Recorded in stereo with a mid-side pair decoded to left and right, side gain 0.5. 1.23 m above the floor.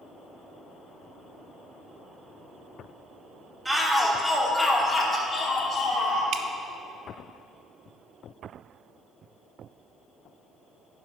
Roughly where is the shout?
Ahead.